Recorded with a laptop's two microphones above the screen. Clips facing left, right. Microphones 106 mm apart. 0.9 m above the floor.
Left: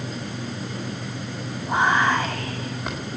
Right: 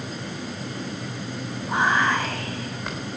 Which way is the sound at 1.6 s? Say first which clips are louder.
Left 2 dB; 5° left (ahead or behind).